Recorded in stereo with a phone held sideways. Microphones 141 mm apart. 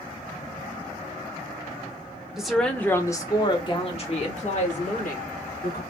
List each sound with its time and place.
2.4 s a woman speaking: 5° right (ahead or behind), 1.2 m; by 5.8 s 65° left (ahead or behind), 2 m